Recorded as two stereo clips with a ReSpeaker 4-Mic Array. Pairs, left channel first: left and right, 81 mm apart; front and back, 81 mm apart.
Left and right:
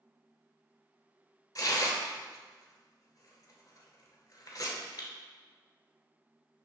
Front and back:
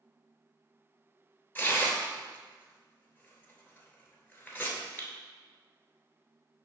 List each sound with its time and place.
1.6 s tearing paper: 65° left, 0.8 m